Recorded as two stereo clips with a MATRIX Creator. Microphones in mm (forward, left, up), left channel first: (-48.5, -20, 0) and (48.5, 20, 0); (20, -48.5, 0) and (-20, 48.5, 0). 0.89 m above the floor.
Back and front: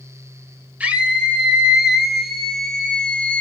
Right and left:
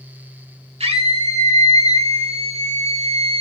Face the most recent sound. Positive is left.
turn(degrees=125)